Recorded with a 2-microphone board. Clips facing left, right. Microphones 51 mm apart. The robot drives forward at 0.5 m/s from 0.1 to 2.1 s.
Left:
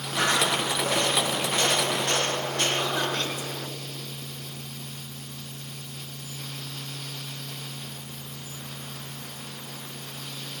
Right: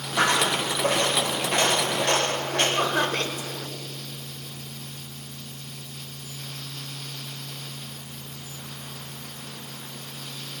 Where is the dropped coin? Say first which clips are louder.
Right 2 dB; 65° right (ahead or behind), 6 m; by 2.7 s 75° right (ahead or behind), 5.5 m.